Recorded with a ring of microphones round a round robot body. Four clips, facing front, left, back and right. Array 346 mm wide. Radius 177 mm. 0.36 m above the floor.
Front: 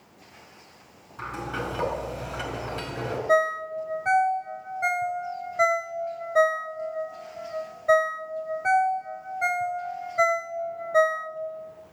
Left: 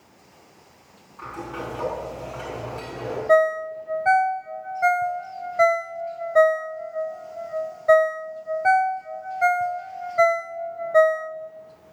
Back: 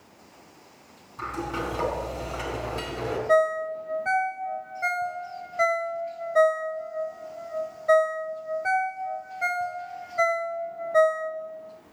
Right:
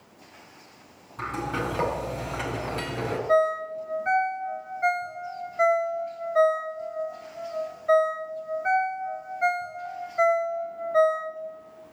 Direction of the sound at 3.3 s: 85° left.